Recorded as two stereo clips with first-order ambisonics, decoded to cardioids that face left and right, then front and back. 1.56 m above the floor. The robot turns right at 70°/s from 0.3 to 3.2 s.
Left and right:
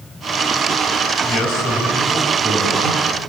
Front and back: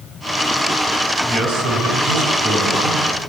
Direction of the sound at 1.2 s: 120° left.